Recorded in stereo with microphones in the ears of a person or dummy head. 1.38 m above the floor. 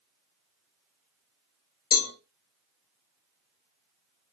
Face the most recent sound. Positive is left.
turn(degrees=50)  # may be behind; listen again after turning